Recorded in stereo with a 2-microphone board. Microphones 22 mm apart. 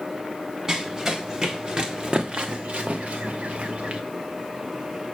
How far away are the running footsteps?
About 1.6 m.